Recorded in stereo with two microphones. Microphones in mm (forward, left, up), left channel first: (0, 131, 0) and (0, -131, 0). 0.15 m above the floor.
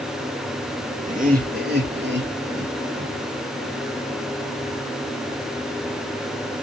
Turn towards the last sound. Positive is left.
turn(degrees=-55)  # may be behind; listen again after turning